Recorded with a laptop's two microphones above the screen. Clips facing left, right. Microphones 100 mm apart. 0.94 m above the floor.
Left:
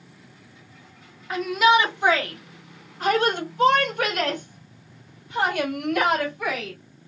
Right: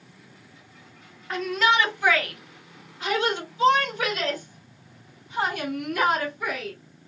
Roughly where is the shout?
Centre.